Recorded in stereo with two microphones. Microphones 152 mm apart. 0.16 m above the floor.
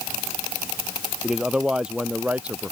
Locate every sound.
1.2 s a man speaking: 5° right (ahead or behind); by 2.7 s 10° right (ahead or behind)